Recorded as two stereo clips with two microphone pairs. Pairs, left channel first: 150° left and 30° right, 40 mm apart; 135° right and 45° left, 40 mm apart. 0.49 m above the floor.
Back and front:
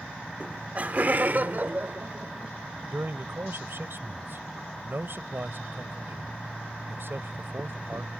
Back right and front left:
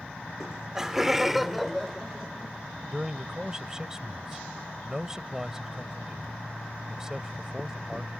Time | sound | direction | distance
0.4 | laughter | 15° right | ?
2.9 | a man speaking | 35° right | ?